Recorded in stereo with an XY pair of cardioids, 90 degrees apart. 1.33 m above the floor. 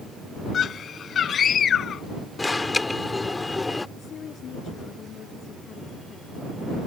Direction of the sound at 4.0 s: 65° left.